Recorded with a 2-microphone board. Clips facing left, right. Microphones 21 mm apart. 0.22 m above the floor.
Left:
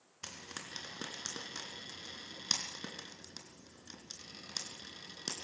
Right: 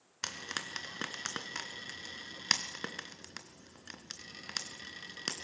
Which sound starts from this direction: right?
Frying, at 0.2 s.